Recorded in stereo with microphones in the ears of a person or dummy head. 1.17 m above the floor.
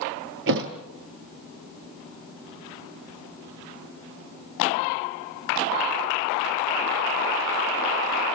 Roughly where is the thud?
Right.